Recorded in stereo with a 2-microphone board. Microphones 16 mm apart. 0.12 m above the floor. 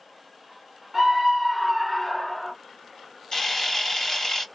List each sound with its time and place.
0.9 s a scream: 20° right (ahead or behind), 1.6 m; by 2.5 s 5° left (ahead or behind), 1.7 m
3.3 s a camera shutter: 35° left (ahead or behind), 1.9 m